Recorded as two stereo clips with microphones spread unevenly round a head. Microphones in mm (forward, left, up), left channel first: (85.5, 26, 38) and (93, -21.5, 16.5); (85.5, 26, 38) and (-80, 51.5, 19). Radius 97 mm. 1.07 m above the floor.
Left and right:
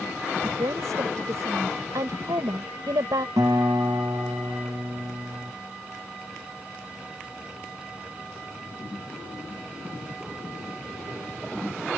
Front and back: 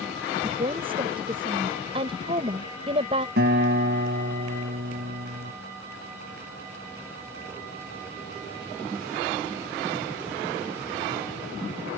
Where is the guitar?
145° right.